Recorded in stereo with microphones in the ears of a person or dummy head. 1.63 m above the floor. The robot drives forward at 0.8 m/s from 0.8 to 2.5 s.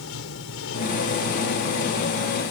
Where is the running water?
75° left (ahead or behind); by 2.5 s 65° left (ahead or behind).